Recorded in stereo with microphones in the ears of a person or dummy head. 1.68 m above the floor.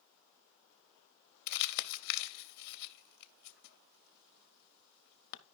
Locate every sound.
1.5 s crumpling: 60° left (ahead or behind), 0.6 m